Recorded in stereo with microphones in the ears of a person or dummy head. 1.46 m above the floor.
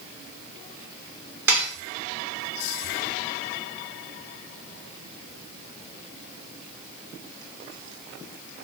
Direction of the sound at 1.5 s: 15° right (ahead or behind).